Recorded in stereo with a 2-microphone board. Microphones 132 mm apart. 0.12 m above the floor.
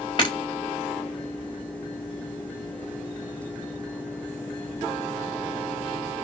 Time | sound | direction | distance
0.2 | breaking glass | 35° left (ahead or behind) | 6 m